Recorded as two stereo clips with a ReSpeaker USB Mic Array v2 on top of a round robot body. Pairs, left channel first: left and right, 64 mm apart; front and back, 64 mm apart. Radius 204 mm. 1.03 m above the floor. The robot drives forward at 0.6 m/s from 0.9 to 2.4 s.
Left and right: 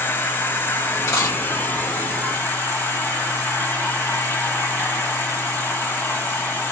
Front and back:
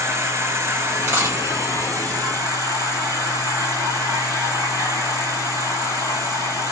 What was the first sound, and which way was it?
An insect, 140° left.